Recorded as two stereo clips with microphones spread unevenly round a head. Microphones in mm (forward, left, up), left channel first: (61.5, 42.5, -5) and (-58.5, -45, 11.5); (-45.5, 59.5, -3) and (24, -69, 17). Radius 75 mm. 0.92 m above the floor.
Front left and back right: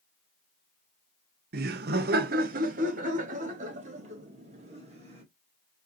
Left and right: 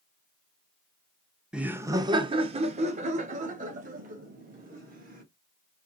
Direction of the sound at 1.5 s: 150° right.